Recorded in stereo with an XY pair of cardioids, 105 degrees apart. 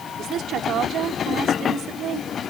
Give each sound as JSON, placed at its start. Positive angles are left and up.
{"t": 0.2, "sound": "a woman speaking", "azimuth_deg": -70}